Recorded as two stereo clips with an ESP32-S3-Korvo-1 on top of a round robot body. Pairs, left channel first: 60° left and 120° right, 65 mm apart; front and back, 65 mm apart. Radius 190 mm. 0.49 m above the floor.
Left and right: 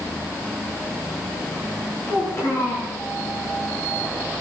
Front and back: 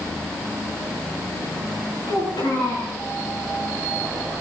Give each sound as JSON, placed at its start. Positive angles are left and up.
{"t": 2.1, "sound": "a child speaking", "azimuth_deg": 10, "distance_m": 8.0}